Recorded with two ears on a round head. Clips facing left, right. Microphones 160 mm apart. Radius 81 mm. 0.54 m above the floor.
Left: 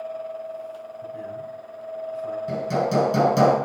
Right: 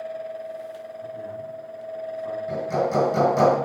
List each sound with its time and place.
1.0 s a man speaking: 30° left (ahead or behind), 4.5 m
2.5 s hammering: 40° left (ahead or behind), 6.5 m